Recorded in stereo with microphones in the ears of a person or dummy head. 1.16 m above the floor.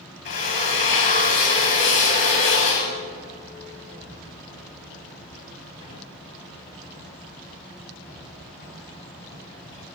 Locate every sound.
0.2 s a drill: 50° left (ahead or behind), 2 m